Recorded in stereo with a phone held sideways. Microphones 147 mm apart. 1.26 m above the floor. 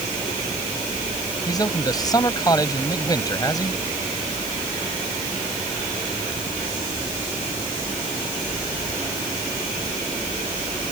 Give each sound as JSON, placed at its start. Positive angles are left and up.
{"t": 1.5, "sound": "a man speaking", "side_deg": 25}